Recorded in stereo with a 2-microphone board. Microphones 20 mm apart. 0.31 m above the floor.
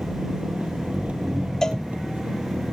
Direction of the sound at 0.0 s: 80° right.